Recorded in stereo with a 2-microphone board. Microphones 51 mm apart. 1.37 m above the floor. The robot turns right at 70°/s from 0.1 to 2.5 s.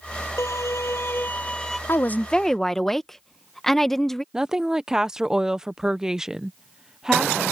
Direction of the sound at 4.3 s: 10° right (ahead or behind).